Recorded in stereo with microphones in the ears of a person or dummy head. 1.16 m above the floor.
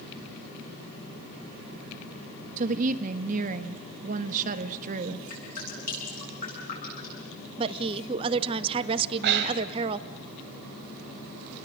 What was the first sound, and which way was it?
A woman speaking, 40° right (ahead or behind).